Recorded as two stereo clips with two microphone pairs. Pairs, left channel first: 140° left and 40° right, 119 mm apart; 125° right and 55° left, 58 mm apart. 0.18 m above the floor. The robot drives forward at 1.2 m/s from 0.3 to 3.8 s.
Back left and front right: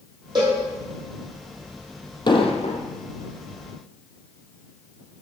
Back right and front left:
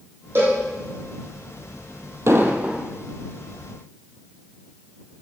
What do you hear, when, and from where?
0.3 s a cowbell: 10° left, 3 m; by 0.6 s 15° left, 3 m
2.3 s an explosion: 95° left, 0.8 m; by 2.8 s 130° left, 1.1 m